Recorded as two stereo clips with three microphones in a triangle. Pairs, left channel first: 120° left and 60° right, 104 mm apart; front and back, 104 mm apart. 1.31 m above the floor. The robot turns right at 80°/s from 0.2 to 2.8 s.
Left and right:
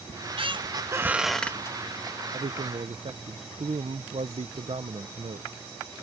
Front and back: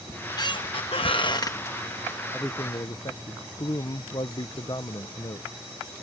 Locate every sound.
0.1 s a squeak: 60° right; by 1.8 s 70° left
2.3 s a man speaking: 80° right; by 5.5 s 45° right